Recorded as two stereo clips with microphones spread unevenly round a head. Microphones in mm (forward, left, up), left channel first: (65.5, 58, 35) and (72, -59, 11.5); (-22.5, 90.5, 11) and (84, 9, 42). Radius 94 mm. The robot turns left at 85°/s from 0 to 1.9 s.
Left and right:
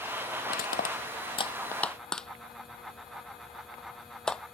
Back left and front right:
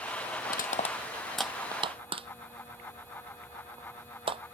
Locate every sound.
0.5 s crushing: 130° left; by 4.4 s 10° left